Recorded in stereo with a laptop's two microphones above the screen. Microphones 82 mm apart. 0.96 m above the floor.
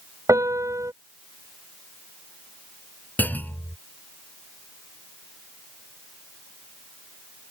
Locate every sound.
0.3 s a piano: 40° right (ahead or behind)
3.2 s a clunk: 20° left (ahead or behind)